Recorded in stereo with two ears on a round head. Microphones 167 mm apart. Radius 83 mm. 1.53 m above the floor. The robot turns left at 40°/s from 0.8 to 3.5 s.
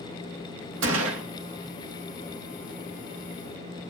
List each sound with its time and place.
0.8 s a gunshot: 75° right (ahead or behind), 2.5 m; by 1.2 s 90° right, 2.5 m